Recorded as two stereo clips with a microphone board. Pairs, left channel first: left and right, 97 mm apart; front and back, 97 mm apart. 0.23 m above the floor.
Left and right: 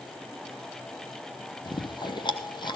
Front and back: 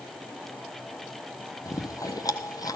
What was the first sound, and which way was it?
Chewing, 50° left.